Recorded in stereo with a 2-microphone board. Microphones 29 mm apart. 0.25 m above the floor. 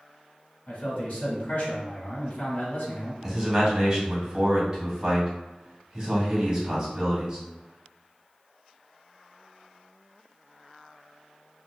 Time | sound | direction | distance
0.7 | a man speaking | 55° left (ahead or behind) | 1.8 m
3.2 | a man speaking | 20° right (ahead or behind) | 1.8 m